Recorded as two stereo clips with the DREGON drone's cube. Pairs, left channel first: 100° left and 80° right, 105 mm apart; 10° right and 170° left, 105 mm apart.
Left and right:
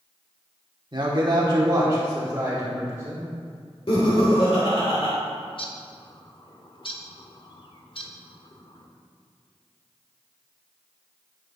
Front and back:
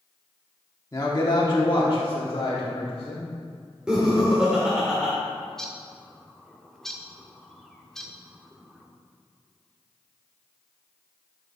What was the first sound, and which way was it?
A man speaking, 60° right.